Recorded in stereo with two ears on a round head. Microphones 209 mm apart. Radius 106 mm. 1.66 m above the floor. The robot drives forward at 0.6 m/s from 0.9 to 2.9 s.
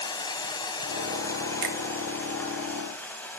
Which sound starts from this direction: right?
A finger snap, at 1.6 s.